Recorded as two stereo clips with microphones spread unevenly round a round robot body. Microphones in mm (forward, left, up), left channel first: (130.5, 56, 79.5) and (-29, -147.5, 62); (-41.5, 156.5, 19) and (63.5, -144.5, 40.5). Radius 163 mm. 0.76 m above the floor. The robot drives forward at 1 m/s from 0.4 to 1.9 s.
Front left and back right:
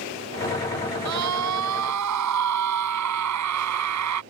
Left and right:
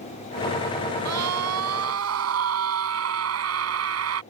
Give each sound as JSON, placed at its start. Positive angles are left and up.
{"t": 1.1, "sound": "a scream", "azimuth_deg": -110}